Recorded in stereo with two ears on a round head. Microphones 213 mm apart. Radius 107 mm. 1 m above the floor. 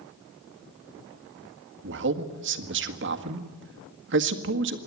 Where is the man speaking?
55° right (ahead or behind), 1.8 m.